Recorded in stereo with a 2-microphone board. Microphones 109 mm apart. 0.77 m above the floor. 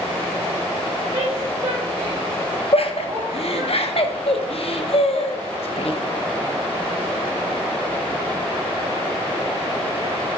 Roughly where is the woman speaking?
Right.